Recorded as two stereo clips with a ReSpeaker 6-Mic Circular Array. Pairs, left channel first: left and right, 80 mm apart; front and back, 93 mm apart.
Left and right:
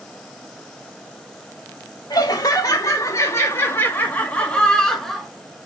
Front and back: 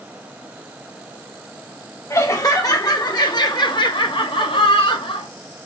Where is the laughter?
55° left, 2 m; by 5.3 s straight ahead, 1.8 m.